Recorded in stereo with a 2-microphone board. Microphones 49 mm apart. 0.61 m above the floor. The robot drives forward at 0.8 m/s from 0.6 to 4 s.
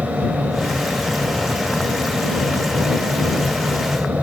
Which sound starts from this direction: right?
An aircraft, at 0.0 s.